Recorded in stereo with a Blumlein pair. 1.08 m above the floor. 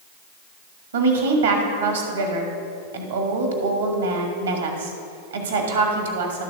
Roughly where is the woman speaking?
Right.